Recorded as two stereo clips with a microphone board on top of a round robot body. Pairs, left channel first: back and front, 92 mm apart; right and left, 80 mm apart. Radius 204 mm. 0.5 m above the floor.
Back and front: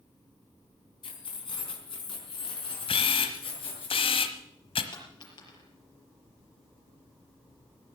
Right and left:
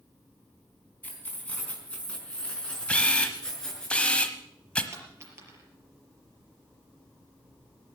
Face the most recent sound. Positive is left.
turn(degrees=145)